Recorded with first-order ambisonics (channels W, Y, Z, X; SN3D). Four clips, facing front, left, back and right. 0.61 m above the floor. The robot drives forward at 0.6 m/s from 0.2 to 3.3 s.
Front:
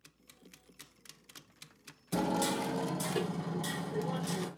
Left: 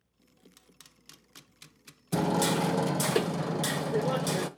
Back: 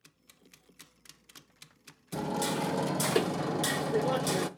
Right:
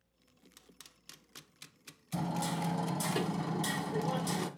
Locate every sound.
2.1 s hammering: 75° left, 0.6 m; by 4.5 s 135° left, 0.8 m